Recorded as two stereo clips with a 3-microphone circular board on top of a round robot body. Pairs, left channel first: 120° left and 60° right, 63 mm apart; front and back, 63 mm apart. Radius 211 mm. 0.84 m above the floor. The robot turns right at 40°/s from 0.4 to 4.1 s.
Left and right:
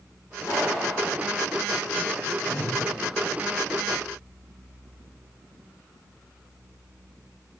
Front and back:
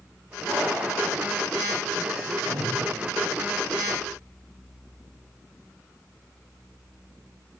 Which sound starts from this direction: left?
A pop, at 0.4 s.